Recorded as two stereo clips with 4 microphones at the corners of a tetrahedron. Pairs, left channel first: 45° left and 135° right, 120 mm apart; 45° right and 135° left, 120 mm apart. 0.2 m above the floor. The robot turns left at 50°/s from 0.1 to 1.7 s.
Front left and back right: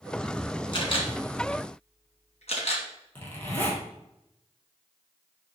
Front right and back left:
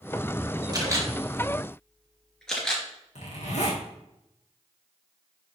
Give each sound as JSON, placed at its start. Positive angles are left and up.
{"t": 0.7, "sound": "a camera shutter", "azimuth_deg": 85, "distance_m": 2.5}
{"t": 3.1, "sound": "a zipper", "azimuth_deg": -30, "distance_m": 3.0}